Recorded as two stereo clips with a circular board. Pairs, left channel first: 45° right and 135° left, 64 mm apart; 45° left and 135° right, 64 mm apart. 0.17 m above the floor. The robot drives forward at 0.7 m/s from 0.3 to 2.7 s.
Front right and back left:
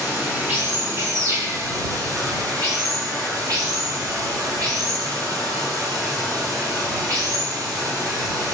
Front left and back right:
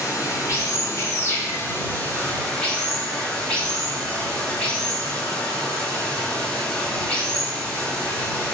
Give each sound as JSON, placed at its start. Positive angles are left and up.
{"t": 0.0, "sound": "running water", "azimuth_deg": 70, "distance_m": 1.8}